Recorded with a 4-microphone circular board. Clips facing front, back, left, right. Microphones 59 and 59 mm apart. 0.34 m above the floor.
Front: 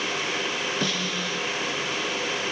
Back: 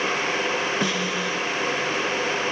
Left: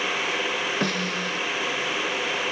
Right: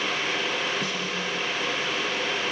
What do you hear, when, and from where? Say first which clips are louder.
0.8 s a snare drum: back 3 dB, left 3 dB; 115° left, 1.7 m